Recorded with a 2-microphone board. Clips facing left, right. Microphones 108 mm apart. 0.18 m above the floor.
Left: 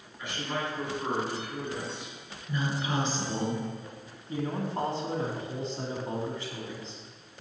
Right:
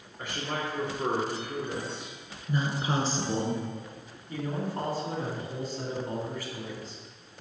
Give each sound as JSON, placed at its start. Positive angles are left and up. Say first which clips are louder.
{"t": 0.2, "sound": "a man speaking", "louder": "even", "side_deg": -50, "distance_m": 3.5}
{"t": 2.5, "sound": "a woman speaking", "louder": "right 2 dB", "side_deg": -30, "distance_m": 2.0}
{"t": 4.3, "sound": "a man speaking", "louder": "left 1 dB", "side_deg": 25, "distance_m": 1.8}